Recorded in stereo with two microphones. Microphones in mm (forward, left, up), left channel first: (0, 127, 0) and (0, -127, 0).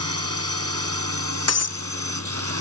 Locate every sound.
0.0 s a drone: 65° right (ahead or behind)
1.5 s breaking glass: 75° left (ahead or behind)